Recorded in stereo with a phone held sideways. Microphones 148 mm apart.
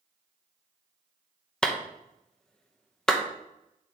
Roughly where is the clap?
Centre.